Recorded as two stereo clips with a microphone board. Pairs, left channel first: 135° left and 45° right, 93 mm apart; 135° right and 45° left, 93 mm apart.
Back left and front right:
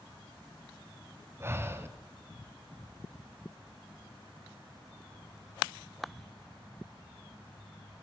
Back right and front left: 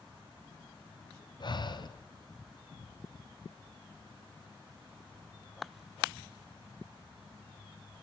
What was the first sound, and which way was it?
Breathing, 105° right.